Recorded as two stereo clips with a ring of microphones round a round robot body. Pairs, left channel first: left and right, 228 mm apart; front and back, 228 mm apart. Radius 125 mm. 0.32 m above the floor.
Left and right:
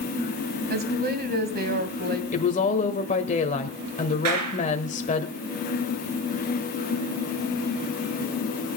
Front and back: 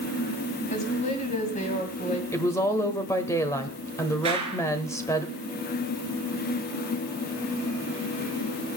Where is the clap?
110° right, 4 m.